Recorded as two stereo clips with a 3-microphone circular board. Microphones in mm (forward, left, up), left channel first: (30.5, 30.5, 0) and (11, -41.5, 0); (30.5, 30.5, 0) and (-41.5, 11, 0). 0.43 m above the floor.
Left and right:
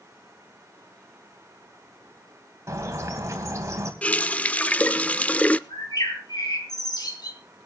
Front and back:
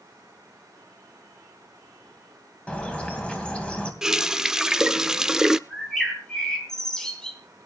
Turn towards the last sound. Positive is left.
turn(degrees=95)